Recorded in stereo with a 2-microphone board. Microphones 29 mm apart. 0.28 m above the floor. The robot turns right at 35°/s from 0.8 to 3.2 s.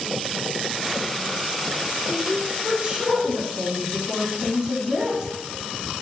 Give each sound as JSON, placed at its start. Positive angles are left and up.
{"t": 2.1, "sound": "a woman speaking", "azimuth_deg": -60, "distance_m": 2.5}